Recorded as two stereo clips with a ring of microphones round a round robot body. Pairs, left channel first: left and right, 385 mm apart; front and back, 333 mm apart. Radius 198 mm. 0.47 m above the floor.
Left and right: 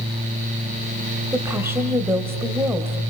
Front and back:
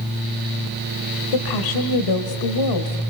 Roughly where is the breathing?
No breathing in this recording.